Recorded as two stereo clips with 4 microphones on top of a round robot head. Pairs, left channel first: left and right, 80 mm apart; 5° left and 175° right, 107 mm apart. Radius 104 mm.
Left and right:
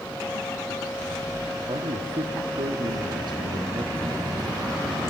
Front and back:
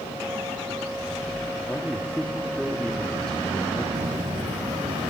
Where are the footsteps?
145° right, 0.9 m; by 5.1 s 155° right, 1.8 m.